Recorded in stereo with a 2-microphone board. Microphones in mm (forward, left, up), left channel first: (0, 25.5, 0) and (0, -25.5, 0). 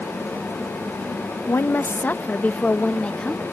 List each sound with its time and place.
1.5 s a woman speaking: 55° left (ahead or behind); by 3.4 s 20° left (ahead or behind)